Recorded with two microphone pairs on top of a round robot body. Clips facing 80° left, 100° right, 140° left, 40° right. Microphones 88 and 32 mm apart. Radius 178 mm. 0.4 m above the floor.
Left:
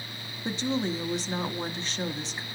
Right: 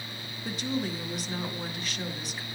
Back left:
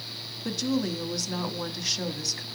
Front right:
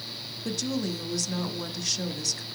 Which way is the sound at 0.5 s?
80° left.